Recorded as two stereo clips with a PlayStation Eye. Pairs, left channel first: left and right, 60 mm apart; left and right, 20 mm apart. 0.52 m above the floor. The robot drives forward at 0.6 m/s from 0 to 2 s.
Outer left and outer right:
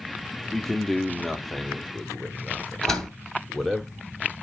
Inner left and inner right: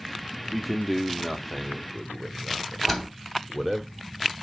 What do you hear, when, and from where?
0.5 s a man speaking: 5° left (ahead or behind), 0.7 m
2.8 s a door slam: 10° left (ahead or behind), 2 m